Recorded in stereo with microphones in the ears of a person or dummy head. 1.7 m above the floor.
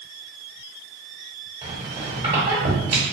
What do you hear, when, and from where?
1.6 s a squeak: 30° right (ahead or behind), 1.6 m